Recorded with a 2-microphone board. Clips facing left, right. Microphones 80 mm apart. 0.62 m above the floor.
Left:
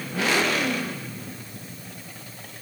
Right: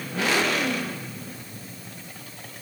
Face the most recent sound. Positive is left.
No sound to turn to.